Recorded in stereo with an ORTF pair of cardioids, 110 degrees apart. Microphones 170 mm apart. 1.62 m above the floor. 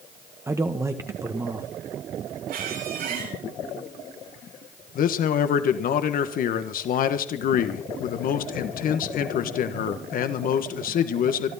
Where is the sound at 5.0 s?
60° left, 1.5 m.